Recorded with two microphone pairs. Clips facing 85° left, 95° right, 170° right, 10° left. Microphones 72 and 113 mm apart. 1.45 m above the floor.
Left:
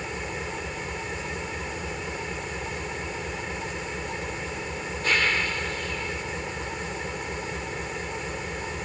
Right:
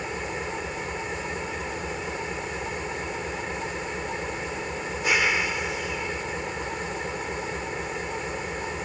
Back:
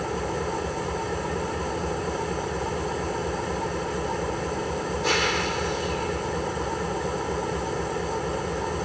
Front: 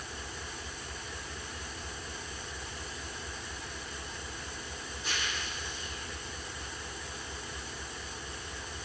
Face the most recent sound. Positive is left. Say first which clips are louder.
# right 2 dB, back 17 dB
turn(degrees=-170)